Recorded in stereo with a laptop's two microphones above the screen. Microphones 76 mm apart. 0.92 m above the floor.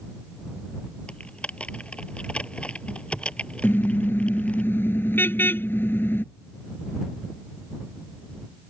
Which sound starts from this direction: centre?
Typing on a keyboard, at 1.1 s.